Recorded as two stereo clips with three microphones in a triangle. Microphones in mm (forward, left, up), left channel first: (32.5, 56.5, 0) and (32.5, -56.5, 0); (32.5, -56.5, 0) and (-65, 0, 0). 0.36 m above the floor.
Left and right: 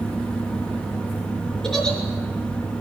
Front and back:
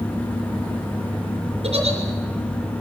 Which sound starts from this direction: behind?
A giggle, at 1.6 s.